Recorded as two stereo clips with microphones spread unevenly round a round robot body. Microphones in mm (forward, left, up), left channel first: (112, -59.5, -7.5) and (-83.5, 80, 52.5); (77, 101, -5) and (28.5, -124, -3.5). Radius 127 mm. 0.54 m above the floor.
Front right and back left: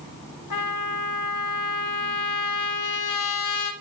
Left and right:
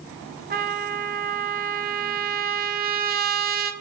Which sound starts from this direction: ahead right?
A trumpet, at 0.5 s.